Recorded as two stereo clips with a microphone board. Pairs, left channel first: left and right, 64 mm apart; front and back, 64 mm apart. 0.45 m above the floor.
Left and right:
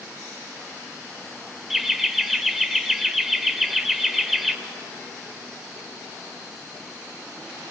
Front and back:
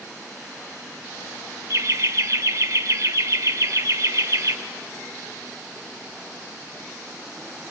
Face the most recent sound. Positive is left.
turn(degrees=-175)